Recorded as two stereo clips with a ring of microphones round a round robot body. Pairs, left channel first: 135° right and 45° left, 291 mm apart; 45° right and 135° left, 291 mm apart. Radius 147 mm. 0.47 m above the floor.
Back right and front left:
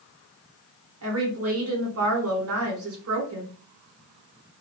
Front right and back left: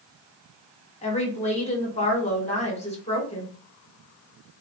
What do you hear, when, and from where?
1.0 s a woman speaking: 20° left, 1.4 m